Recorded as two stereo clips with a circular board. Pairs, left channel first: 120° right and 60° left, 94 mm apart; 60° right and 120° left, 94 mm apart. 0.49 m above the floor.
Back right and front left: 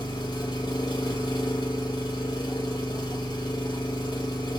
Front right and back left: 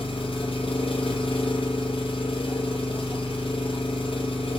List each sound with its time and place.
0.0 s an engine running: 80° right, 2 m